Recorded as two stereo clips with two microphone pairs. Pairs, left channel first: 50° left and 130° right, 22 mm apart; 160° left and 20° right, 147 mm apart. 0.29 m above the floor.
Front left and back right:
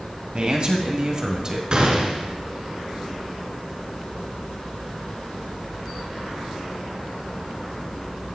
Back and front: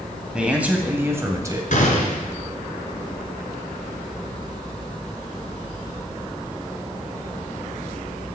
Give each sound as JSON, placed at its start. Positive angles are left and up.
{"t": 0.3, "sound": "a man speaking", "azimuth_deg": -105, "distance_m": 2.0}
{"t": 1.7, "sound": "a gunshot", "azimuth_deg": -175, "distance_m": 2.5}